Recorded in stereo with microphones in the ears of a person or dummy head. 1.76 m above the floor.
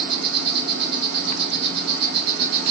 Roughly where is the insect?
Right.